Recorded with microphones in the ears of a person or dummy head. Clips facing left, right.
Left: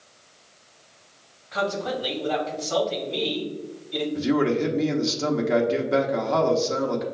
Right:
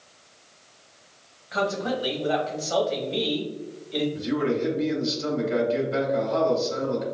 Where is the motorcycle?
I don't hear a motorcycle.